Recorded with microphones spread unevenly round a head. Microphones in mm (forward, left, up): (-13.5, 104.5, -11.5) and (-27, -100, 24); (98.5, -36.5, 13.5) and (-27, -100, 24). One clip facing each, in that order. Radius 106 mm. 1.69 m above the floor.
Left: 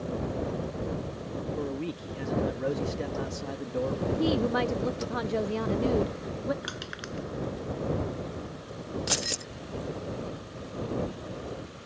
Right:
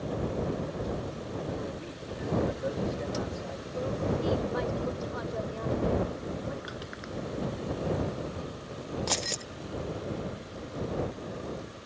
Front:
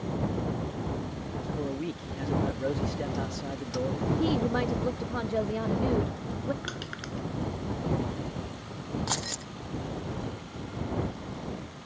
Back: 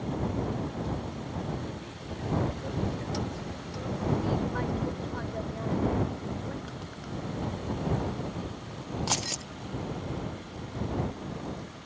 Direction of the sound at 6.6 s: 60° left.